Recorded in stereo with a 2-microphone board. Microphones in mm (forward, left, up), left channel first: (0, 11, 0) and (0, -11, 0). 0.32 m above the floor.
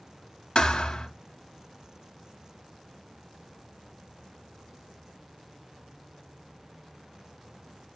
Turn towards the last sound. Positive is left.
turn(degrees=50)  # may be behind; listen again after turning